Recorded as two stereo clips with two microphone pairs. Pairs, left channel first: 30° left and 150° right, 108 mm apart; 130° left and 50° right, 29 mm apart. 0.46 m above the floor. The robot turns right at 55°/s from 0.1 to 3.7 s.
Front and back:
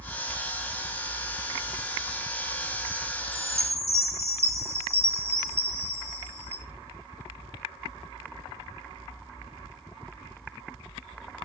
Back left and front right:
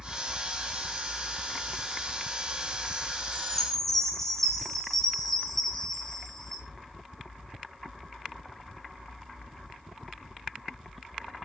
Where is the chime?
175° right, 3 m; by 6.6 s 155° right, 3 m.